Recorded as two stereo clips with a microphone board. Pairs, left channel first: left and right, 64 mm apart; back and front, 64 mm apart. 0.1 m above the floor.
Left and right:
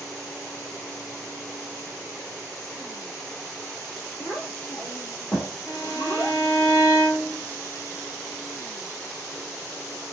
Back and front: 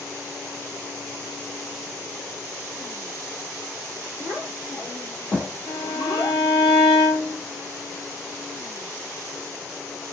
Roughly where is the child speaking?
Behind left.